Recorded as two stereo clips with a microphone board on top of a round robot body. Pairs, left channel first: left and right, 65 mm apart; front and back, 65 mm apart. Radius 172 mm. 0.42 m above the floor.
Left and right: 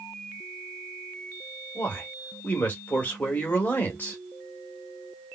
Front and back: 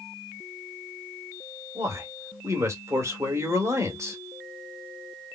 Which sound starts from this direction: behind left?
A man speaking, at 1.8 s.